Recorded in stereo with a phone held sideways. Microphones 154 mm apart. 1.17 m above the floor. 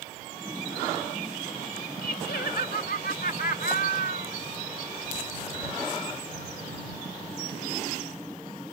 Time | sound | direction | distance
2.0 | laughter | 80° left | ?